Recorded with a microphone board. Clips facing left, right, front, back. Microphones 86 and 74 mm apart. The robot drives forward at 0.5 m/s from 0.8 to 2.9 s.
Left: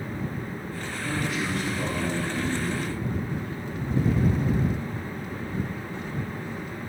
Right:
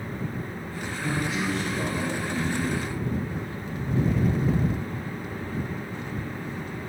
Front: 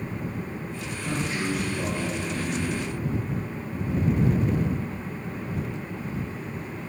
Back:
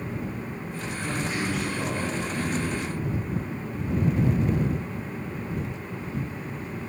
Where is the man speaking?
95° right, 6 m; by 3.0 s 105° right, 6 m.